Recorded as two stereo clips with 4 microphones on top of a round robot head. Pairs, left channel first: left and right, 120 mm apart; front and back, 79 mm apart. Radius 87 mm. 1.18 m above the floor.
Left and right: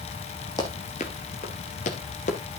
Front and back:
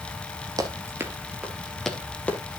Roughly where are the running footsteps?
Behind left.